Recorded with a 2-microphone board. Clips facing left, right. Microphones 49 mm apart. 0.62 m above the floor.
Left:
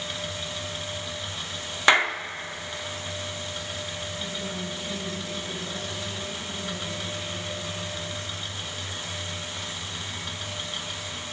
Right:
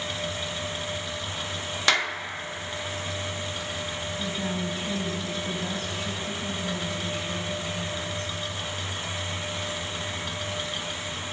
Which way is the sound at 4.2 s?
65° right (ahead or behind).